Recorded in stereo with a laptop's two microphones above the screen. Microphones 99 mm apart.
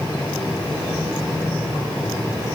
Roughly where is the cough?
I don't hear a cough.